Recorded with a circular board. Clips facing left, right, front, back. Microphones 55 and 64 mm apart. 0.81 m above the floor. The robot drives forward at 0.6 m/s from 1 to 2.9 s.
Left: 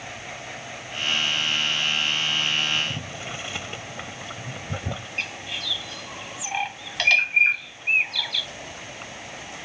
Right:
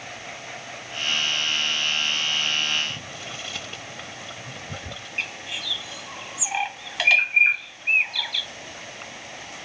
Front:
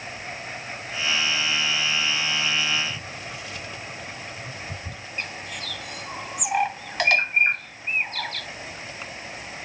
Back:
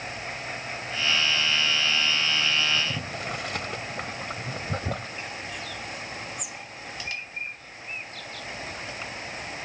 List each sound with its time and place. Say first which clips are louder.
2.8 s boiling: left 1 dB, back 1 dB; 160° left
5.2 s a bird: right 3 dB, front 2 dB; 5° right